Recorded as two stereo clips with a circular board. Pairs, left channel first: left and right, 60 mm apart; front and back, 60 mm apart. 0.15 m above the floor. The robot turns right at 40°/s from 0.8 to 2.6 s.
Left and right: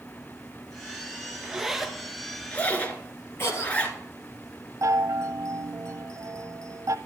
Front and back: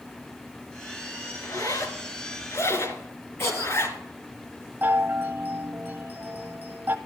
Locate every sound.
1.4 s a zipper: 15° right, 1.7 m; by 4.0 s 30° left, 1.7 m
3.4 s a cough: 45° left, 4.5 m
4.8 s a chime: 125° right, 0.8 m